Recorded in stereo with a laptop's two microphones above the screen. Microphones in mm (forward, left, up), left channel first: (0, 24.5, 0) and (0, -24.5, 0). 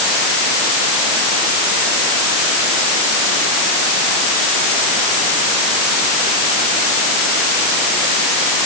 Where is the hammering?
No hammering in this recording.